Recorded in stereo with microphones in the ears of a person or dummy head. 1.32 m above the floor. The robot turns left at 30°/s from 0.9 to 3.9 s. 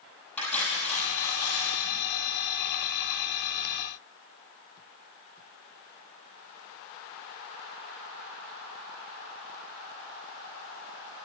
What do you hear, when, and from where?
0.4 s cutlery clinking: 10° left (ahead or behind), 5.5 m; by 1.8 s 35° left (ahead or behind), 5.5 m